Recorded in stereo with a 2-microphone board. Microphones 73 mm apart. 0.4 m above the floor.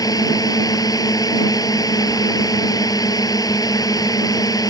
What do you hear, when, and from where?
0.0 s a drone: 55° left (ahead or behind)